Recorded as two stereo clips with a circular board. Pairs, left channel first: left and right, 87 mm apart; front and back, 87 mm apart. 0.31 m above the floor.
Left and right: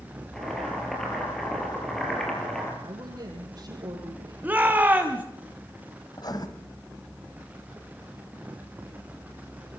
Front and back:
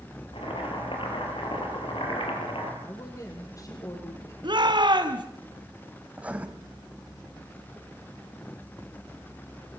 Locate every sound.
0.3 s boiling: 5° left, 9.5 m
2.8 s a woman speaking: 50° right, 9.5 m
4.4 s a shout: 160° right, 2.5 m
6.1 s writing: 110° left, 2.5 m